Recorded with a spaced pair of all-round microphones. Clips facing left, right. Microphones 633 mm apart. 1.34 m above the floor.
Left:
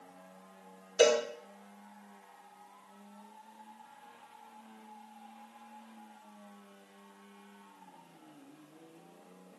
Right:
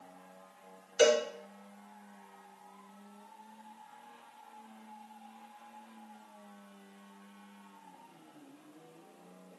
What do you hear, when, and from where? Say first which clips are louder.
1.0 s a cowbell: even; 85° left, 6.5 m